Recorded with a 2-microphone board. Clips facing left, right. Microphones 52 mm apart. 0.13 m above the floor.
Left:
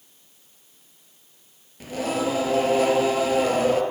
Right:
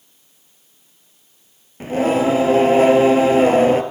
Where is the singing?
35° right (ahead or behind), 0.8 m.